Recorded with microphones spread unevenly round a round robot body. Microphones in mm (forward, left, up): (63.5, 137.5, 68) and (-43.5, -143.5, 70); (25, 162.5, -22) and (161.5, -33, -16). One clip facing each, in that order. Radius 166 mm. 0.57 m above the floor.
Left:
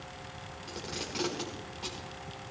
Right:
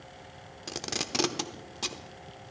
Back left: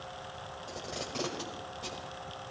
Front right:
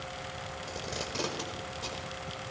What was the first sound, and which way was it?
Tape being pulled, 125° right.